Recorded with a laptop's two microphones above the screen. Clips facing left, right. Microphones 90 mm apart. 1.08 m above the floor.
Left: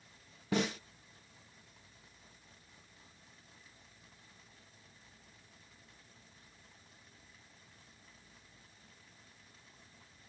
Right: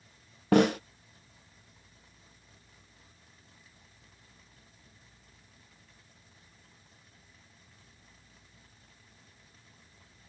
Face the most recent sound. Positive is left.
turn(degrees=-70)  # may be behind; listen again after turning